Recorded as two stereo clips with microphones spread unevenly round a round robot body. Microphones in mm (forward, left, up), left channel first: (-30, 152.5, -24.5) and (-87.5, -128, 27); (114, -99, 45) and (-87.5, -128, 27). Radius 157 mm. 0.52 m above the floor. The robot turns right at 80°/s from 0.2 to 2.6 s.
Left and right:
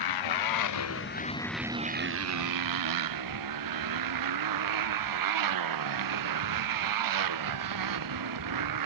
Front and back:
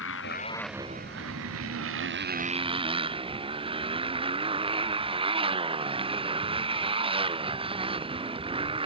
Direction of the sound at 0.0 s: 60° left.